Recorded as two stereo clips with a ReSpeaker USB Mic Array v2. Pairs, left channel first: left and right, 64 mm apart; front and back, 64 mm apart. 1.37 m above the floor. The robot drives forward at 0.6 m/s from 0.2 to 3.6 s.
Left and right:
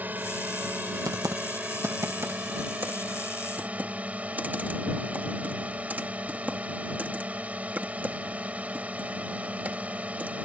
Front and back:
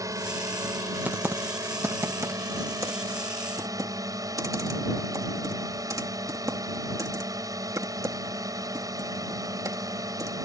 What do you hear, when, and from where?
0.0 s a drone: 155° right; by 10.5 s 160° right
1.1 s typing on a keyboard: 115° right; by 10.4 s 155° right